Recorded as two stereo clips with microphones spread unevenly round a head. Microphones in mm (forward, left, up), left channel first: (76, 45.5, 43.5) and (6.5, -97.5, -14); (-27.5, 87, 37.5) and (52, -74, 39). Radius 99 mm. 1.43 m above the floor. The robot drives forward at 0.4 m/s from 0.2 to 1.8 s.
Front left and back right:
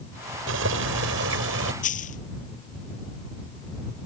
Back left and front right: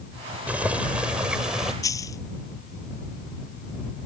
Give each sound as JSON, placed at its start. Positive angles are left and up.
{"t": 0.5, "sound": "boiling", "azimuth_deg": -145}
{"t": 1.8, "sound": "a dropped coin", "azimuth_deg": 45}